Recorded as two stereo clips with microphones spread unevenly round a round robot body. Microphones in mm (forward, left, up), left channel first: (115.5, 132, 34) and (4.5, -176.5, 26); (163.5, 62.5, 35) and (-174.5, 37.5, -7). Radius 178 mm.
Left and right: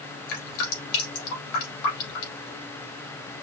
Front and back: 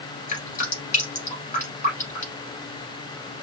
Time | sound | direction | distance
0.3 | dripping | 75° left | 2.5 m